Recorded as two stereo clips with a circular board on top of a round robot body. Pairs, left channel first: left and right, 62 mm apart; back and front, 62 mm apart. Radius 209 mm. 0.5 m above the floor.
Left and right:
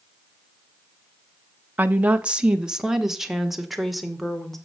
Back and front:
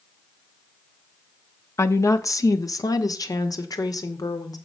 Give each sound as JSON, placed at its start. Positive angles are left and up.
{"t": 1.8, "sound": "a woman speaking", "azimuth_deg": -150, "distance_m": 1.3}